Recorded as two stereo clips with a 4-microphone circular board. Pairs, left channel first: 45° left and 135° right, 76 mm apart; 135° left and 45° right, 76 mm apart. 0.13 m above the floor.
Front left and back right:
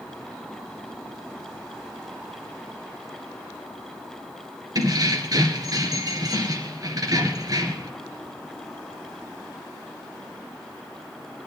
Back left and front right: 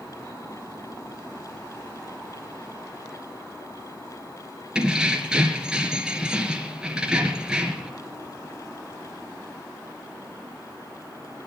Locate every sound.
4.8 s keys jangling: 120° right, 1.7 m